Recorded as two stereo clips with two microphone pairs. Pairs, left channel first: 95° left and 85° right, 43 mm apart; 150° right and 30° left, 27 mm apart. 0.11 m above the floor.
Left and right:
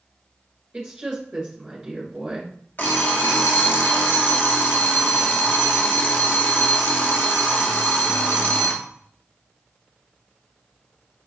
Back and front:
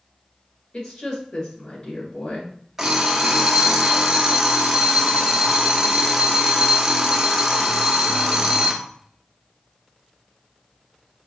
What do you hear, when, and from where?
0.7 s a woman speaking: 160° right, 1.6 m
2.8 s an alarm clock: 95° left, 0.7 m